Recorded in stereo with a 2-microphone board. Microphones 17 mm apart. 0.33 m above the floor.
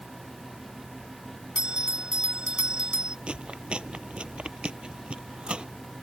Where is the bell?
65° right (ahead or behind).